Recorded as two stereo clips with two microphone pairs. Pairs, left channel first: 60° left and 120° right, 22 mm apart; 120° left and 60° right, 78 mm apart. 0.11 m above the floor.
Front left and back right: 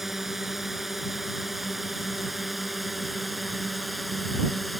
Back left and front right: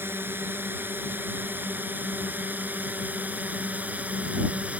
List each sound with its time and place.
0.0 s a drone: 55° right; by 4.8 s 30° right